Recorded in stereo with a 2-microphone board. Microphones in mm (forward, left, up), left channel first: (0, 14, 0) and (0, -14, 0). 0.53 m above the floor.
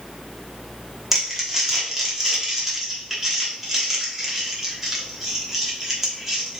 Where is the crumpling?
10° right (ahead or behind), 1.1 m.